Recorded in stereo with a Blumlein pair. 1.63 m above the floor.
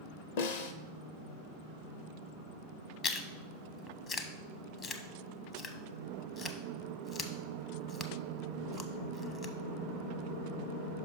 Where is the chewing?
25° left, 0.7 m.